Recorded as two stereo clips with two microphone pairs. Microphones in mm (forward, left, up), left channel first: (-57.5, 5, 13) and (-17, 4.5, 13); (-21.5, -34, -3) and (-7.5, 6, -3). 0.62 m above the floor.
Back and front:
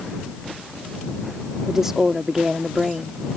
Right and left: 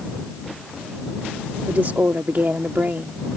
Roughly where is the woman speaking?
Left.